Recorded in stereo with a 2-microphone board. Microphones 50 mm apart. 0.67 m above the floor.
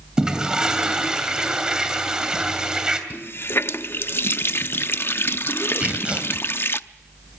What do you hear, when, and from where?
0.2 s a toilet flushing: 15° right (ahead or behind), 2.5 m
3.1 s a running tap: 50° left (ahead or behind), 0.5 m
5.8 s tearing paper: 25° right (ahead or behind), 2.5 m